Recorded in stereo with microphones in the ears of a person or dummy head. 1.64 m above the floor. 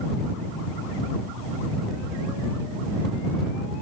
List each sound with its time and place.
Only background noise.